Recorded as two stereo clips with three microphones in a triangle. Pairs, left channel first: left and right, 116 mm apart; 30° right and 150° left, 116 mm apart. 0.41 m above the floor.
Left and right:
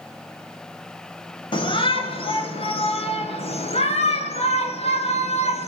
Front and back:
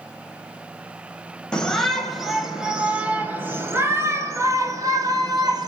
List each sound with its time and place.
1.5 s a shout: 55° left, 2.5 m; by 5.7 s 100° left, 3.5 m